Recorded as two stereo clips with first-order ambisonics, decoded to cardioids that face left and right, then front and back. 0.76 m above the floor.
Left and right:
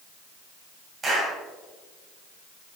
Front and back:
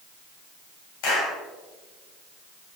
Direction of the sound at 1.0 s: 15° right.